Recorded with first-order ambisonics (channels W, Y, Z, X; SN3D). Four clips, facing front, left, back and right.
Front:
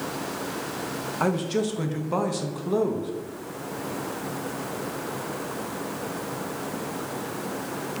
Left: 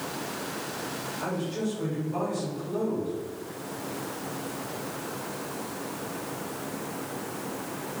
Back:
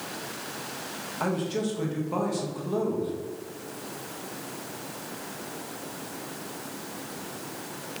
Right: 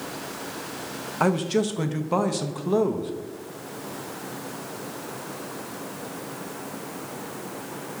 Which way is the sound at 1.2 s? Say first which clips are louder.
Right 10 dB, front 3 dB; 70° right.